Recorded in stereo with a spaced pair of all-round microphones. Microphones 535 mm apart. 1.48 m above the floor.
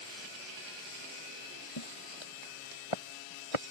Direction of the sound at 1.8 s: 50° left (ahead or behind).